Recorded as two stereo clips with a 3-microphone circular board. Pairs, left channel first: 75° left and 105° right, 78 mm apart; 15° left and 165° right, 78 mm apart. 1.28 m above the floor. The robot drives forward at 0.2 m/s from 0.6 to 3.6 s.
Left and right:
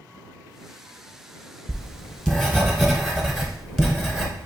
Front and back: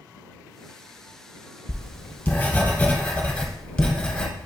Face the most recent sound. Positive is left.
turn(degrees=-25)